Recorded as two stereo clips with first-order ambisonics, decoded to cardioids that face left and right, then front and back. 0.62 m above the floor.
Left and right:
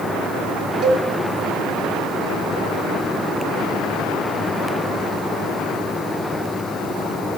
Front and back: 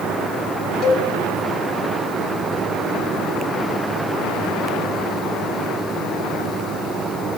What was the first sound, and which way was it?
A cowbell, 40° right.